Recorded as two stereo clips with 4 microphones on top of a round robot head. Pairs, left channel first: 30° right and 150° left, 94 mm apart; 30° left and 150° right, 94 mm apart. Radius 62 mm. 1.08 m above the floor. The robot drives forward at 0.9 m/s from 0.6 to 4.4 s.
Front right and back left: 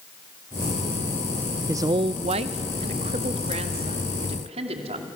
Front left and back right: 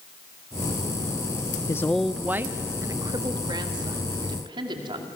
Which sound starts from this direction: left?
A woman speaking, at 1.7 s.